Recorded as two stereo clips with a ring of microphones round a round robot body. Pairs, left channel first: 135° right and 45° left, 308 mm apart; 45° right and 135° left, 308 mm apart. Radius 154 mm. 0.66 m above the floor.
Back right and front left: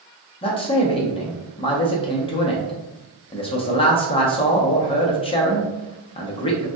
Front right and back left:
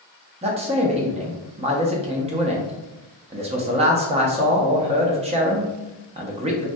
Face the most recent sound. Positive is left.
turn(degrees=175)